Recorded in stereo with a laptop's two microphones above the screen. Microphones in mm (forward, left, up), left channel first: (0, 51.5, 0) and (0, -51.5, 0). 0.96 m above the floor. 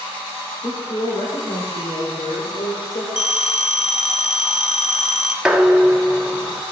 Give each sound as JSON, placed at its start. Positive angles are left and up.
{"t": 0.6, "sound": "a woman speaking", "side_deg": 50, "distance_m": 3.5}
{"t": 3.2, "sound": "a phone ringing", "side_deg": 80, "distance_m": 1.4}
{"t": 5.5, "sound": "dishes clattering", "side_deg": -10, "distance_m": 1.2}